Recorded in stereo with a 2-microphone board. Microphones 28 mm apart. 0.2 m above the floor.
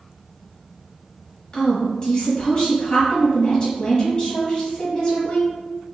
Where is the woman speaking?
25° left (ahead or behind), 1.1 m.